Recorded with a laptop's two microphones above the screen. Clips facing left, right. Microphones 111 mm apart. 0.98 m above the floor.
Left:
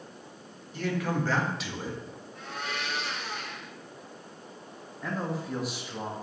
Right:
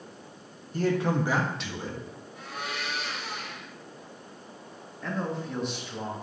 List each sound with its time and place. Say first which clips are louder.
0.7 s a man speaking: right 4 dB; 45° right (ahead or behind), 1.3 m; by 2.0 s 15° left (ahead or behind), 1.7 m
2.4 s a blender: even; 5° right (ahead or behind), 2.5 m
5.0 s a man speaking: right 1 dB; 5° left (ahead or behind), 1.8 m